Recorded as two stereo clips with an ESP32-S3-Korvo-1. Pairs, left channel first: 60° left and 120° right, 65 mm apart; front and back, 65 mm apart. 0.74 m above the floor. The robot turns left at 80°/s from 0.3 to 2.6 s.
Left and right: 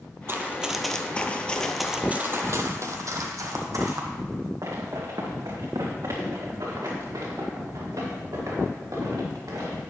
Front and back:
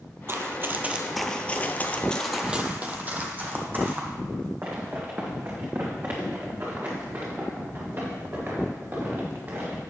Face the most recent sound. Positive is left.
turn(degrees=-130)